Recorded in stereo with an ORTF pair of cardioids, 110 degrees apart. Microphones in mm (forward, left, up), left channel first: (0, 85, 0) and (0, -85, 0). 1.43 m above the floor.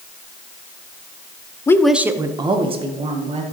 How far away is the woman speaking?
About 0.6 m.